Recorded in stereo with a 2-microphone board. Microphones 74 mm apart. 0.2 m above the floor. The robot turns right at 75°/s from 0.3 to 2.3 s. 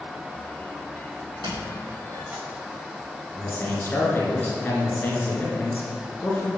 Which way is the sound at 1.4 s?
85° right.